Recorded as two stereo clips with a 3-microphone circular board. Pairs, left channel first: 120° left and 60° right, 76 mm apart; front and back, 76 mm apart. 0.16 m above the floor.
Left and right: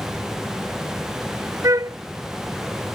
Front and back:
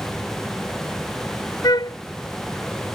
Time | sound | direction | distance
1.6 | a flute | 20° right | ?